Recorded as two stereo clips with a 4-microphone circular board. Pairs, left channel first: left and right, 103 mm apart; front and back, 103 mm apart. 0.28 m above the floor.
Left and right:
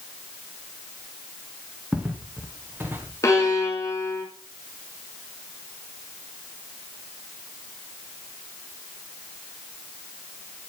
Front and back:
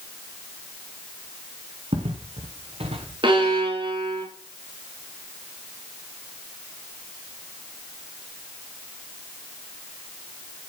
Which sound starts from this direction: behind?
Footsteps, at 1.9 s.